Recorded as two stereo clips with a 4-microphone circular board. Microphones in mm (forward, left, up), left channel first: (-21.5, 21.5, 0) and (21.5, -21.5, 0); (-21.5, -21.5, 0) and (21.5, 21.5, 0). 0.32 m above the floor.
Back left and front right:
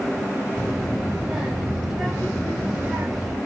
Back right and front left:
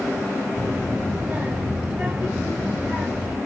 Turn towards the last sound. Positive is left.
turn(degrees=25)